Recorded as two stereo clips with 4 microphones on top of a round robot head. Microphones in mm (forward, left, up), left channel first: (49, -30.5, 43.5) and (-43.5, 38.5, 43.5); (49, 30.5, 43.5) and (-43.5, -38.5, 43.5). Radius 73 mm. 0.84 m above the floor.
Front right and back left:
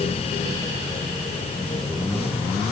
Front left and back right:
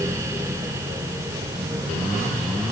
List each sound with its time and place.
Only background noise.